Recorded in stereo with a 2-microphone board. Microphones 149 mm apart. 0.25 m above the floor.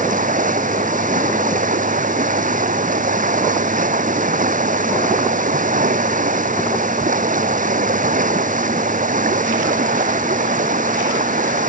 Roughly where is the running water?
Right.